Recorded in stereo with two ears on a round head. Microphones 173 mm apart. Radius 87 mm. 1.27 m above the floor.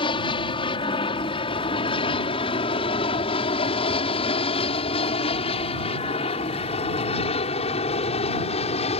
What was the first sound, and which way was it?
An aircraft, 25° left (ahead or behind).